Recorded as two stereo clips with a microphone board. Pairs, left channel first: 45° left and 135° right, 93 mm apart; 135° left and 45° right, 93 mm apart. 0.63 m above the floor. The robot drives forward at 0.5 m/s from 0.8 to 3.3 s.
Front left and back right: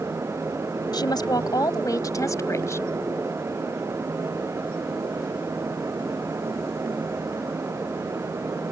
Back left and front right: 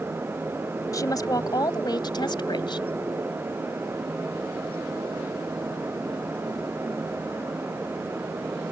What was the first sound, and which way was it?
A woman speaking, 85° left.